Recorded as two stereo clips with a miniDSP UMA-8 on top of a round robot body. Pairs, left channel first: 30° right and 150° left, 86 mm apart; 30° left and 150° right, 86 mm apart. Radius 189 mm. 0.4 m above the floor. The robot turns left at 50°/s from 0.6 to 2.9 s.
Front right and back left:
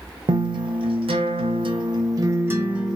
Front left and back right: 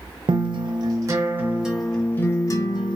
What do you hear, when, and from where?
0.3 s a guitar: straight behind, 0.7 m; by 3.0 s 65° left, 0.7 m